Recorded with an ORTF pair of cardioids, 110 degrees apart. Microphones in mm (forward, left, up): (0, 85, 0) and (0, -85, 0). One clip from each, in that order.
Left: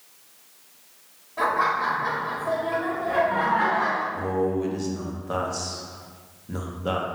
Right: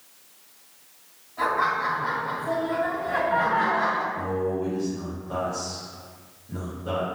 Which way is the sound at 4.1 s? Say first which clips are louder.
Left 2 dB; 50° left.